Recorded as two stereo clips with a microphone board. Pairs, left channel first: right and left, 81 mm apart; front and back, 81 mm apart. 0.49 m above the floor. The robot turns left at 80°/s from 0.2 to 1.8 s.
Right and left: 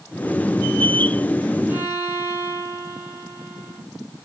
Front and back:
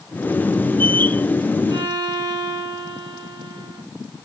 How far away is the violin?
About 3 m.